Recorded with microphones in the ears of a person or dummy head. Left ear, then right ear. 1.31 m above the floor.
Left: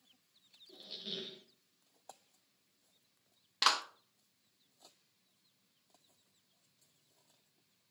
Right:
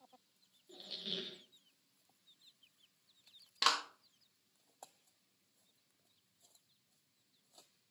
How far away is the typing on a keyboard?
I don't hear typing on a keyboard.